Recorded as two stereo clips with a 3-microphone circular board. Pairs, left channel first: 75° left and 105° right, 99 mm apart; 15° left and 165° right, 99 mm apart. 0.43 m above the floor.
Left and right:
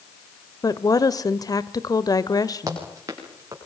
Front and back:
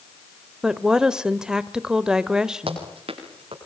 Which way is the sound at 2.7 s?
160° right.